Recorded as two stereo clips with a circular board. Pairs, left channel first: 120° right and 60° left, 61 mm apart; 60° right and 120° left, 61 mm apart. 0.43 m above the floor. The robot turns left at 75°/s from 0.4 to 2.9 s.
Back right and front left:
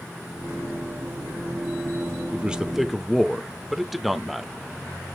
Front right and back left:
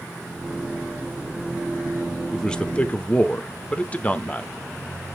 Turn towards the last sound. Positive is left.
turn(degrees=-30)